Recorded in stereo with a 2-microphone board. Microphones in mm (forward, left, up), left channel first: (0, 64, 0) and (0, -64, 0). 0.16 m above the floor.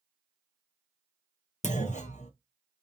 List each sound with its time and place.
1.6 s a clunk: 70° left (ahead or behind), 0.7 m